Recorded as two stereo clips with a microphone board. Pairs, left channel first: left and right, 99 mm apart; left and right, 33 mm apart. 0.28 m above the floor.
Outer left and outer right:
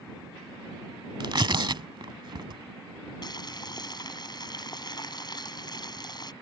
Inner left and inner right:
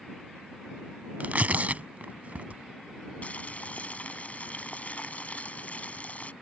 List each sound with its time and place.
1.2 s tearing paper: 50° right (ahead or behind)
3.2 s boiling: 45° left (ahead or behind)